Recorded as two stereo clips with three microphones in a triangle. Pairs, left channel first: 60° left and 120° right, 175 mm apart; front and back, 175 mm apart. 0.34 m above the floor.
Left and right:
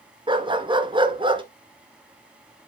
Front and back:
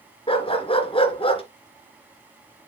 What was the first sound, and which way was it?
A dog barking, 55° right.